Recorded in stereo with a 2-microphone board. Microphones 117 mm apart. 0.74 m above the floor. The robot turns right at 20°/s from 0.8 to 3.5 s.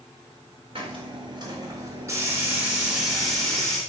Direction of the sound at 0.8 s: 55° right.